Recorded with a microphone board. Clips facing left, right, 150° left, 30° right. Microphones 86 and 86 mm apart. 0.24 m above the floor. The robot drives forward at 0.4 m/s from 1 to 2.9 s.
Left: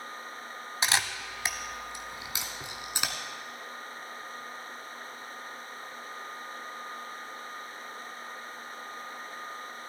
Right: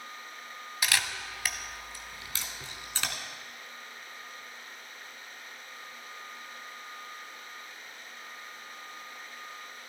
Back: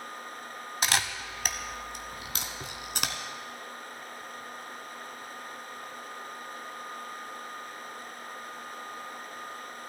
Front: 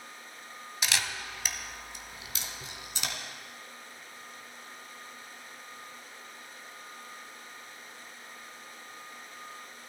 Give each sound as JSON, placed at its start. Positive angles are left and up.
{"t": 0.8, "sound": "a camera shutter", "azimuth_deg": 140, "distance_m": 0.8}